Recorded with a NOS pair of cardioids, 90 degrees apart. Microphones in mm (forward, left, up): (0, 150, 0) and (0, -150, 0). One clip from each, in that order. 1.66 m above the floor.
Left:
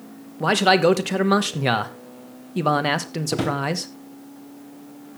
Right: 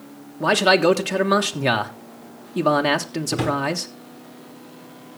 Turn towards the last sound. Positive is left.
turn(degrees=5)